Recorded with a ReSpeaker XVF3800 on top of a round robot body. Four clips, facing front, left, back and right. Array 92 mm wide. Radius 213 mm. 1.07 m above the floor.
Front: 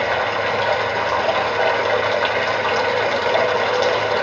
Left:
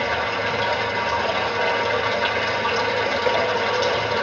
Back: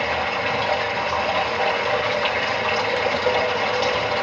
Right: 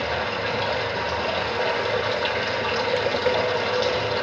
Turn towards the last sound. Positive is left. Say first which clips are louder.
# left 3 dB, front 3 dB
turn(degrees=0)